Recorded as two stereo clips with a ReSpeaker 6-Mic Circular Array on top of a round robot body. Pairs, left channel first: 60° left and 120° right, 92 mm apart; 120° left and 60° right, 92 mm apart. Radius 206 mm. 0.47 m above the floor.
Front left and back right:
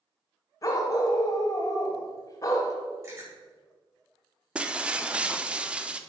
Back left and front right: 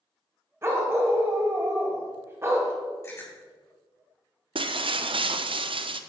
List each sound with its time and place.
0.6 s a dog barking: 5° left, 1.4 m
3.0 s chewing: 175° right, 5.5 m
4.5 s breaking glass: 40° right, 0.9 m